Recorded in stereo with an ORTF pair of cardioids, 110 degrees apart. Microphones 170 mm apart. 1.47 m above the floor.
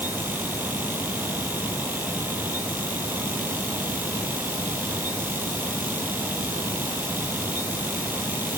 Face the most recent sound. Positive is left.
turn(degrees=-10)